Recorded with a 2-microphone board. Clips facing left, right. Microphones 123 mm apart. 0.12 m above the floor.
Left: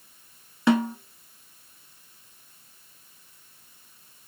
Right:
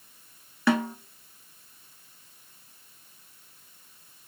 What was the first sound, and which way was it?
A snare drum, 20° left (ahead or behind).